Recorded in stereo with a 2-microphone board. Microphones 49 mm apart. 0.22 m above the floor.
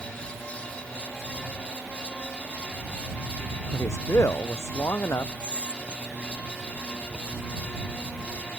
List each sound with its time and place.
3.7 s a man speaking: 80° left
5.4 s whispering: 20° right (ahead or behind)